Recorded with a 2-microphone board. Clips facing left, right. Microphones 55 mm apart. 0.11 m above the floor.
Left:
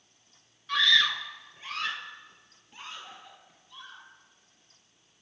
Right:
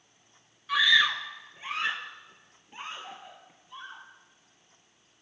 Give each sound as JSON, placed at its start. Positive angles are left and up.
{"t": 0.7, "sound": "a scream", "side_deg": -10, "distance_m": 1.6}